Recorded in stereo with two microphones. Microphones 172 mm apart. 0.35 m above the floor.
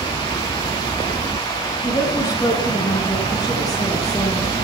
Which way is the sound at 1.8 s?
20° left (ahead or behind).